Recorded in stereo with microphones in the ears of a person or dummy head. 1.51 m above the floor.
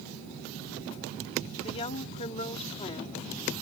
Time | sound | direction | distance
1.6 | a woman speaking | 30° left (ahead or behind) | ?